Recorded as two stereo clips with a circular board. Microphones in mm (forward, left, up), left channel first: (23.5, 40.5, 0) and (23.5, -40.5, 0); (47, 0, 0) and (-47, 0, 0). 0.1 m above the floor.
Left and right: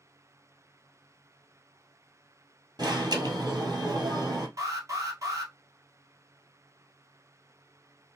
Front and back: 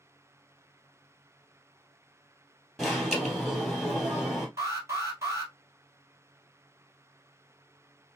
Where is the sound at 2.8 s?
90° right, 1.9 m.